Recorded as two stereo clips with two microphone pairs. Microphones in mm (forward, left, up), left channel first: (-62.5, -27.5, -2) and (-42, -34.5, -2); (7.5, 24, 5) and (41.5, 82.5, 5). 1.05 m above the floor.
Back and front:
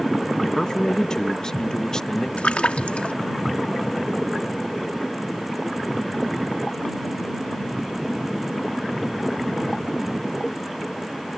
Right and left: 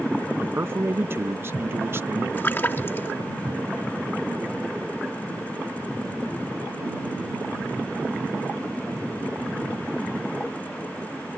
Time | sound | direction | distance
0.4 | a man speaking | 110° left | ?
2.4 | a splash | straight behind | ?